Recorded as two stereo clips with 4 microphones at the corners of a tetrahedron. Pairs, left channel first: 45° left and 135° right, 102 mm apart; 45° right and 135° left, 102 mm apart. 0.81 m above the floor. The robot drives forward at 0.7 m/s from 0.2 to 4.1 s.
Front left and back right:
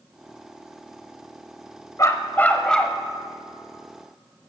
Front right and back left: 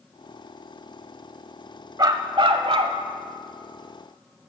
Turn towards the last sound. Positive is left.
turn(degrees=155)